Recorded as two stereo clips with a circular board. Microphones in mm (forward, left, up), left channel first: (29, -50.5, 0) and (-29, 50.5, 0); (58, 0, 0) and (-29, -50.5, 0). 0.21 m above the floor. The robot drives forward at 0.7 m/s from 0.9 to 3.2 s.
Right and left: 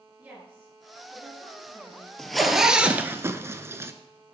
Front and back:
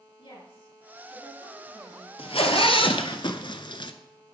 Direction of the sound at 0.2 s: 45° left.